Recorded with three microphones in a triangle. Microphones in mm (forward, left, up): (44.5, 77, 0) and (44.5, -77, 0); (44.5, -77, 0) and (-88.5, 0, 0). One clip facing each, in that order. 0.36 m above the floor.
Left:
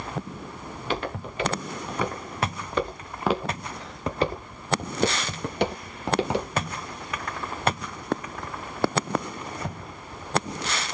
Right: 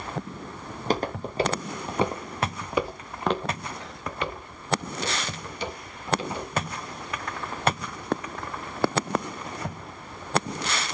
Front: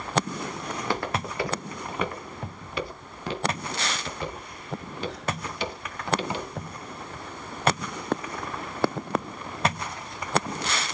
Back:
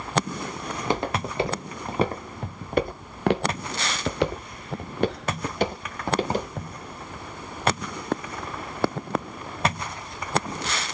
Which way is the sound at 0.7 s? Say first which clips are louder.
Right 3 dB, back 3 dB; 135° right.